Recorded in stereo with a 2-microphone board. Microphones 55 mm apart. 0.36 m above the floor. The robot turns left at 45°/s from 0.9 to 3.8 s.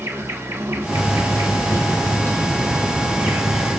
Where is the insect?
50° right, 0.8 m; by 3.8 s straight behind, 0.8 m.